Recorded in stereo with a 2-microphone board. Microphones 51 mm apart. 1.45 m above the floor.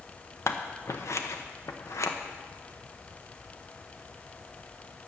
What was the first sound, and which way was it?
Scissors, 60° left (ahead or behind).